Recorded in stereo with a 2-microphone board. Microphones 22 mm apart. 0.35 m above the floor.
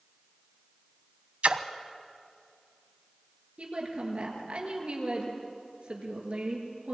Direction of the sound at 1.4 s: 70° right (ahead or behind).